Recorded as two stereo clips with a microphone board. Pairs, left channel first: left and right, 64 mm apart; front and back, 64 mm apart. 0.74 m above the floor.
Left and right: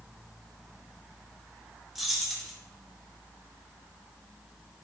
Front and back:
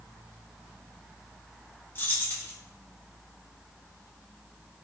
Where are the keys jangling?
10° right, 0.5 m.